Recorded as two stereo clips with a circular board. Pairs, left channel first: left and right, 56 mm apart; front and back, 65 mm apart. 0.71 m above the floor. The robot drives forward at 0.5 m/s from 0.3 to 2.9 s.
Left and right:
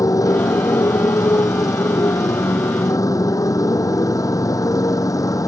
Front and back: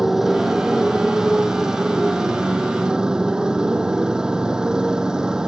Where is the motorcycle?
95° left; by 5.5 s 100° left.